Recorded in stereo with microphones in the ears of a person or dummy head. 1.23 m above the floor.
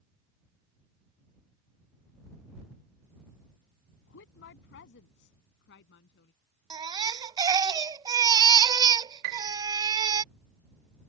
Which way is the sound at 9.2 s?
60° right (ahead or behind).